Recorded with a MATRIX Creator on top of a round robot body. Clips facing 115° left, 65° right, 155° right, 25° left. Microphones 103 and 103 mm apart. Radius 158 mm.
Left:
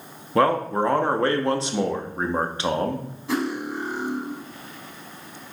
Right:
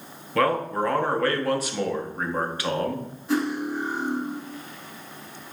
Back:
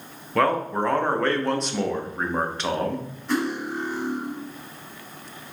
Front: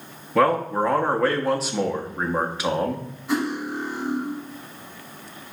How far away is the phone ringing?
No phone ringing in this recording.